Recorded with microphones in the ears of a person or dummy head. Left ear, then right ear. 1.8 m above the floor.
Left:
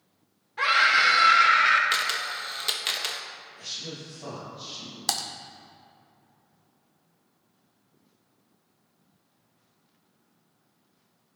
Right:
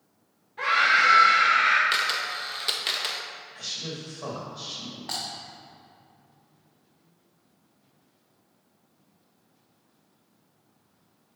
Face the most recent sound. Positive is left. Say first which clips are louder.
# left 4 dB
turn(degrees=75)  # may be behind; listen again after turning